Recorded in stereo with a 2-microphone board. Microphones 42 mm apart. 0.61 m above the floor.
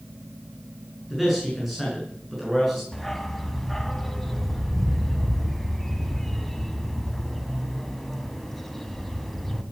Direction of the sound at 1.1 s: Centre (ahead or behind).